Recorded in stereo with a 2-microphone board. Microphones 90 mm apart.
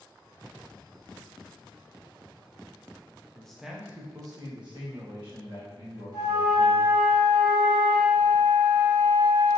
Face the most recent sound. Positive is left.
turn(degrees=-55)  # may be behind; listen again after turning